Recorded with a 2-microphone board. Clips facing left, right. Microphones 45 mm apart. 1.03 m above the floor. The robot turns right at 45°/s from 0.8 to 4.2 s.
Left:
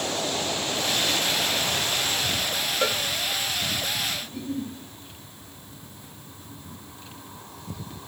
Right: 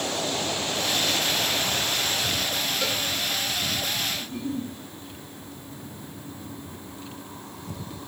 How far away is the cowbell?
About 1.3 m.